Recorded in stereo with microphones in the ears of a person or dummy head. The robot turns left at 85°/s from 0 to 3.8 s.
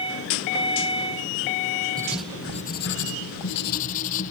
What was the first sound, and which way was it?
Writing, 165° right.